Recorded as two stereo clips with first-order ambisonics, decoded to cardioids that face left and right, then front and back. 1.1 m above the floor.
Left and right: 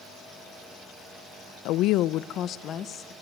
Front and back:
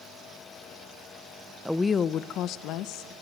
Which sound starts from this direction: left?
A woman speaking, at 1.6 s.